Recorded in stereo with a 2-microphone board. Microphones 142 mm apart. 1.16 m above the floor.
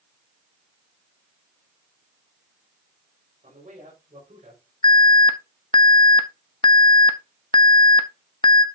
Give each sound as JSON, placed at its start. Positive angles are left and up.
{"t": 3.4, "sound": "a man speaking", "side_deg": -70, "distance_m": 4.5}
{"t": 4.8, "sound": "an alarm", "side_deg": 35, "distance_m": 0.7}